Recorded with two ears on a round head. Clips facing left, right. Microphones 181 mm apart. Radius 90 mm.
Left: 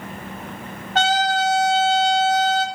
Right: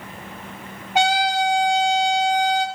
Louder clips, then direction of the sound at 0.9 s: Even; 10° right (ahead or behind).